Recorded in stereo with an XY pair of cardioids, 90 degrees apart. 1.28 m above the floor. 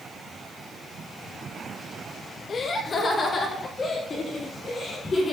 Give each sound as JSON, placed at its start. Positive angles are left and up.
{"t": 2.5, "sound": "laughter", "azimuth_deg": 50, "distance_m": 1.3}